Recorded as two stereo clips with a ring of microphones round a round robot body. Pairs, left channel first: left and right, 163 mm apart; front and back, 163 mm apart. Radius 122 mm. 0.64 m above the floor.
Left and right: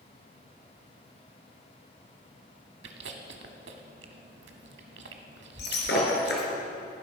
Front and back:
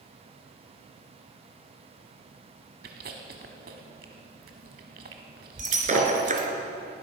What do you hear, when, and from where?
2.8 s chewing: 130° right, 0.9 m
5.6 s breaking glass: 140° left, 2.5 m